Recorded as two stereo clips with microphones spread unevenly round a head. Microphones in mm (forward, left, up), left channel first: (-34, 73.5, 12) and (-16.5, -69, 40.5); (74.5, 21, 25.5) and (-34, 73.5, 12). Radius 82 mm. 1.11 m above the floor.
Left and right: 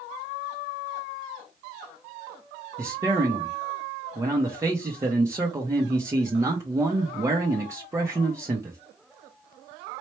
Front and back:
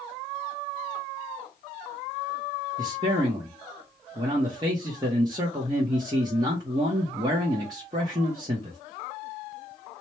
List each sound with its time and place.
2.8 s a man speaking: 160° right, 0.8 m